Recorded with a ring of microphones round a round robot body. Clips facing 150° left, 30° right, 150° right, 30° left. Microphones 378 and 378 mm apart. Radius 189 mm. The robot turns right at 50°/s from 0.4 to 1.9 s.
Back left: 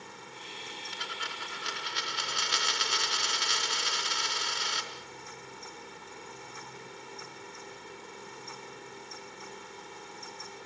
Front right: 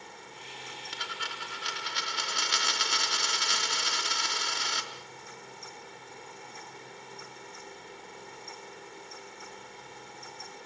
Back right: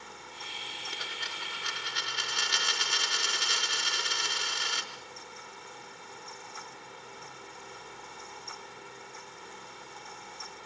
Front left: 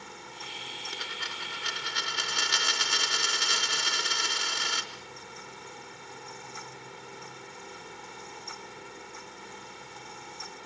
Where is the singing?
No singing in this recording.